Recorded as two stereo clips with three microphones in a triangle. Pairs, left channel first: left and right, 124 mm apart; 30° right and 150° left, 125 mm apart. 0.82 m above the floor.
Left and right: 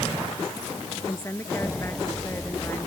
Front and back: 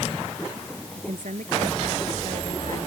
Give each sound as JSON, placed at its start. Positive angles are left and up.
{"t": 0.9, "sound": "a woman speaking", "azimuth_deg": 160}